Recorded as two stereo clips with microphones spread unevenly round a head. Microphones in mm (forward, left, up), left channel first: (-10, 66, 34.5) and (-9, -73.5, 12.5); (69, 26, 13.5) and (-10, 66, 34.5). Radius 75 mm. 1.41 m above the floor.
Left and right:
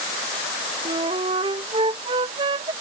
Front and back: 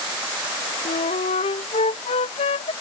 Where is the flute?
30° right.